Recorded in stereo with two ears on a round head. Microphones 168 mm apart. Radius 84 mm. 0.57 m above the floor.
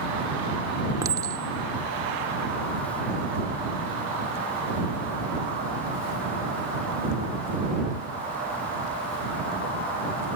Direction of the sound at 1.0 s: 20° right (ahead or behind).